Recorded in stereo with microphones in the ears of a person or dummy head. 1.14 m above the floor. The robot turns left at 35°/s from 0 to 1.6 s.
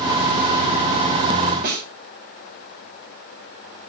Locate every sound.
1.6 s a snare drum: 50° right (ahead or behind), 2.5 m